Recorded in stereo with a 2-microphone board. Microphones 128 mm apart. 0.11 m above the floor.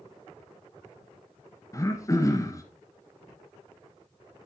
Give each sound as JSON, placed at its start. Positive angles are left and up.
{"t": 1.7, "sound": "throat clearing", "side_deg": 25, "distance_m": 1.3}